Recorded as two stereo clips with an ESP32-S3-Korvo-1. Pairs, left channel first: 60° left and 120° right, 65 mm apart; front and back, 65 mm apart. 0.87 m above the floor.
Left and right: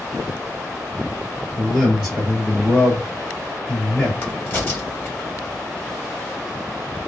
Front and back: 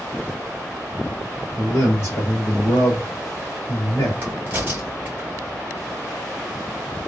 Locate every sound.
1.6 s a man speaking: 35° right, 1.3 m
4.2 s a crack: 115° left, 1.4 m